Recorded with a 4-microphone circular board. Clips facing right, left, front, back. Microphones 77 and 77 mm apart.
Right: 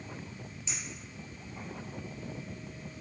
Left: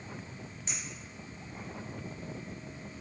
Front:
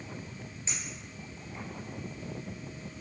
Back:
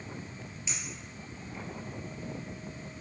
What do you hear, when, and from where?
0.7 s a clink: 55° left, 3.5 m